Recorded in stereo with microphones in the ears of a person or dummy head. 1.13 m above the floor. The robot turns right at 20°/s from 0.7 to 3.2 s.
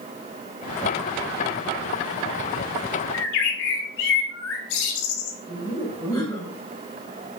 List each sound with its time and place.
3.1 s a bird: 70° left (ahead or behind), 2 m
5.5 s laughter: 15° left (ahead or behind), 4.5 m